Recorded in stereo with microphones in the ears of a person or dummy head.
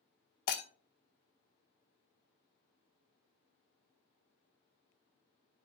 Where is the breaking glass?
55° left (ahead or behind), 0.7 m.